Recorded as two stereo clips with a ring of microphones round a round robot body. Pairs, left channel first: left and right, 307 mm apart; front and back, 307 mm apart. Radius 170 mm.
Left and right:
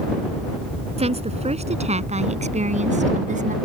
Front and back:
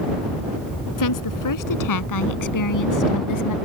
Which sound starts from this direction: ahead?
A woman speaking, at 1.0 s.